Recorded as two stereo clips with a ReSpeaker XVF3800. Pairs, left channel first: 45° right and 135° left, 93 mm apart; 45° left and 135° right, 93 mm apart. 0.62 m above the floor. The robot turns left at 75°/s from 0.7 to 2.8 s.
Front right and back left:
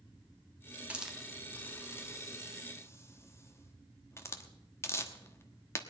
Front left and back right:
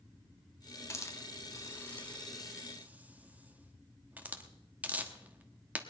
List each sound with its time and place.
0.9 s a hiss: 70° left, 1.1 m; by 5.8 s 75° right, 1.1 m